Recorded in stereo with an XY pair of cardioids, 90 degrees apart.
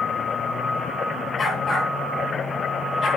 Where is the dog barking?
50° left, 8.5 m; by 3.1 s 55° left, 9 m.